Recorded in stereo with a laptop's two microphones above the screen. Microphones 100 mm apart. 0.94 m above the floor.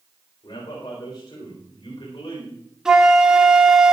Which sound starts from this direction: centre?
A flute, at 2.9 s.